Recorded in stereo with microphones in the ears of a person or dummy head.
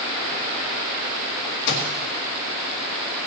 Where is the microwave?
80° left, 1.9 m.